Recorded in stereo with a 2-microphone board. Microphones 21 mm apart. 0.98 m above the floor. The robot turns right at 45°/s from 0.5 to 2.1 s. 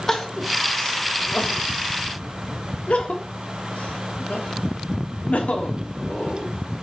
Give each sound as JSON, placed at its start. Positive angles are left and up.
{"t": 0.1, "sound": "crying", "side_deg": 20, "distance_m": 1.3}